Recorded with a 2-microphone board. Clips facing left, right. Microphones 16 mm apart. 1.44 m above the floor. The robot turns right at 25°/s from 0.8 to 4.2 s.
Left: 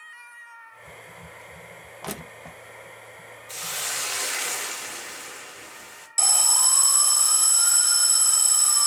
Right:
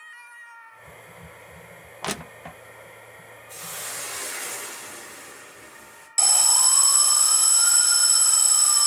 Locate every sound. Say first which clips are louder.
2.0 s crushing: right 5 dB; 35° right (ahead or behind), 0.7 m
3.5 s a hiss: left 5 dB; 85° left, 3 m; by 6.1 s 75° left (ahead or behind), 3 m
6.2 s an alarm: right 1 dB; 10° right (ahead or behind), 0.7 m